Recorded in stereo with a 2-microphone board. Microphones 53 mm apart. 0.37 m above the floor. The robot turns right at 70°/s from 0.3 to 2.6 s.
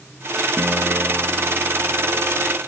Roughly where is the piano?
Ahead right.